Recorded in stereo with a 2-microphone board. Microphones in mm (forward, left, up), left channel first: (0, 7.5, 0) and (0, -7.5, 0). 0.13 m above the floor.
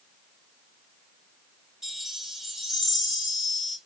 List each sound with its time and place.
1.8 s a chime: 35° right (ahead or behind), 1.7 m